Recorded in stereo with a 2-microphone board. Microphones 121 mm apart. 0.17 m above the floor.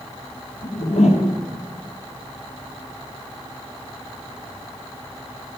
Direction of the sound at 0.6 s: 75° left (ahead or behind).